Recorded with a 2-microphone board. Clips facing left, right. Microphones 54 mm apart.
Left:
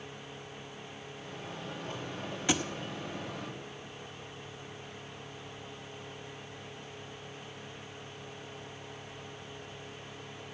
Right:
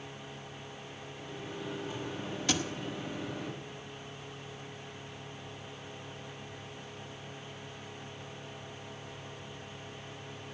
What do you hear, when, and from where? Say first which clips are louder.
1.1 s a microwave: right 2 dB; 55° left (ahead or behind), 9.5 m
2.5 s a thud: left 2 dB; 20° left (ahead or behind), 0.9 m